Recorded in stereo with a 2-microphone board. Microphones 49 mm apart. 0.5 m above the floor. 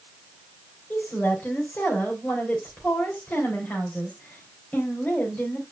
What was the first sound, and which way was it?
A woman speaking, 35° left (ahead or behind).